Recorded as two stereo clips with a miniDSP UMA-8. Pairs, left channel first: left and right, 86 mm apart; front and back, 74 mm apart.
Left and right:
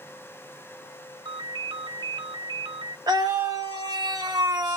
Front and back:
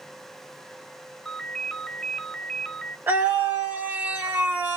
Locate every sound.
1.2 s a ringtone: 85° right, 1.1 m
3.1 s a scream: 125° right, 2 m